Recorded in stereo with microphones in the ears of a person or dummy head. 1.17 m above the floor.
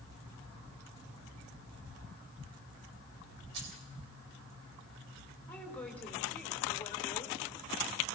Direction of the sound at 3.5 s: 65° right (ahead or behind).